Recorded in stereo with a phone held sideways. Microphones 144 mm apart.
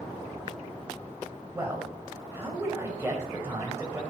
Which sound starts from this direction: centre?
A man speaking, at 1.5 s.